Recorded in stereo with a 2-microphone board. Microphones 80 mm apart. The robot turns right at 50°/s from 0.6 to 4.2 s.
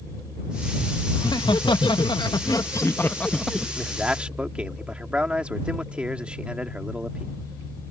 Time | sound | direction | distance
1.1 | laughter | 60° left | ?
3.8 | a man speaking | 10° left (ahead or behind) | ?